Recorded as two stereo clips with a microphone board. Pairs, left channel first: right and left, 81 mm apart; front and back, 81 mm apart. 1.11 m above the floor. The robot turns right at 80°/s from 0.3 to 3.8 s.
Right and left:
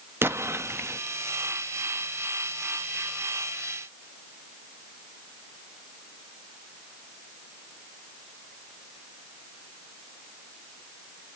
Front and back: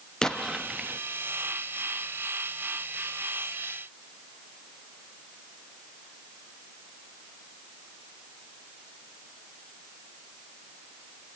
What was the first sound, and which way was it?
An explosion, 75° left.